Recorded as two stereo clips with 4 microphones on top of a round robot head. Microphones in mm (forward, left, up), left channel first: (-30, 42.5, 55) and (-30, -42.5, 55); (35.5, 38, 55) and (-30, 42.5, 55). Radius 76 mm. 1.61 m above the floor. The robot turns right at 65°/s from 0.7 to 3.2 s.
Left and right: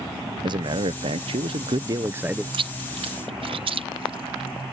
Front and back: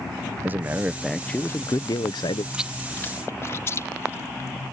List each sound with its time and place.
0.4 s a man speaking: 120° right; by 2.4 s 5° right
2.5 s chewing: 110° right; by 4.6 s 65° right